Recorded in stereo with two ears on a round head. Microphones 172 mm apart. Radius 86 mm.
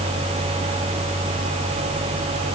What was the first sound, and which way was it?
Only background noise.